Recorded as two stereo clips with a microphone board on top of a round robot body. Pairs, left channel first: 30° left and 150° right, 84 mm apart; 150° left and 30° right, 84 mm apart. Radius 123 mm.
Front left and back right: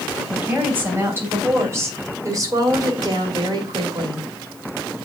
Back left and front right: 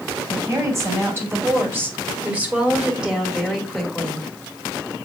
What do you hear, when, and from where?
0.3 s a woman speaking: 80° right, 3 m; by 4.2 s 125° right, 2.5 m